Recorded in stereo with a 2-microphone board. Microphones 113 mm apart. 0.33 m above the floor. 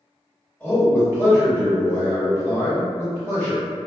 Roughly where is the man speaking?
Centre.